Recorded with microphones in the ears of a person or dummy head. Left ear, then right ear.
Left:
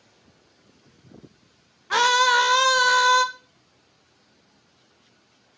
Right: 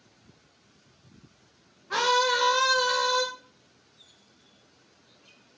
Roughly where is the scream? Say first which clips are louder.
Left 6 dB; left.